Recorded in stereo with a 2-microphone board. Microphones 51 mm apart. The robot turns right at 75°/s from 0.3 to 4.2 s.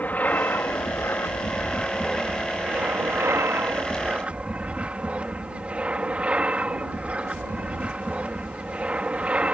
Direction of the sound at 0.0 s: 35° left.